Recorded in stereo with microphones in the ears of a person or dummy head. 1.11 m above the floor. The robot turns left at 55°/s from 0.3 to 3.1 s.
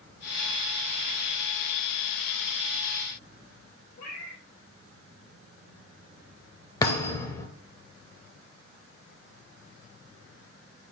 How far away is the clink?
No clink in this recording.